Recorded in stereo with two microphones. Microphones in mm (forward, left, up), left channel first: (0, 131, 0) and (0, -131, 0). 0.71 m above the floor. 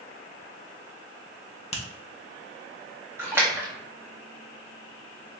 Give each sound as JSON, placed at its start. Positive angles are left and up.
{"t": 1.7, "sound": "a finger snap", "side_deg": 25, "distance_m": 0.7}
{"t": 3.2, "sound": "a splash", "side_deg": -10, "distance_m": 0.9}